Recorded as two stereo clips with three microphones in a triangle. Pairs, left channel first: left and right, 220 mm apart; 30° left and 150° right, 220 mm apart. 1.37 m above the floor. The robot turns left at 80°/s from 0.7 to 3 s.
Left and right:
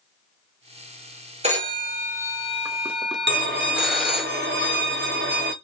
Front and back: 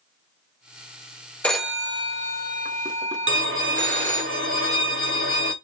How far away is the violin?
About 0.9 m.